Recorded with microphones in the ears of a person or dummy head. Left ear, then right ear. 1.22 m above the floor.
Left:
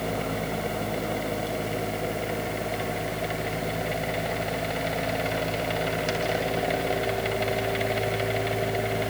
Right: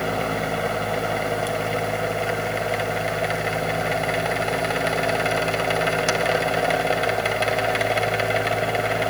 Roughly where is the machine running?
Right.